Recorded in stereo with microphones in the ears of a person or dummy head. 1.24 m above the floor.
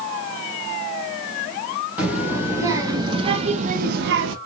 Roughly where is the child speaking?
Centre.